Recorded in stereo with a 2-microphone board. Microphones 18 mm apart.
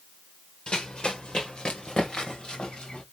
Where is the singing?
I don't hear singing.